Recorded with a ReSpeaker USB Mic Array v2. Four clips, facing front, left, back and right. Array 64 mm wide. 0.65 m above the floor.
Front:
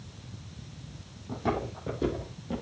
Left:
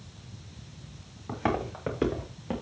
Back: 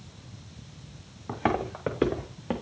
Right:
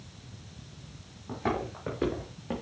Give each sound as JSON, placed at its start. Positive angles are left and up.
{"t": 1.3, "sound": "footsteps", "azimuth_deg": 155, "distance_m": 4.5}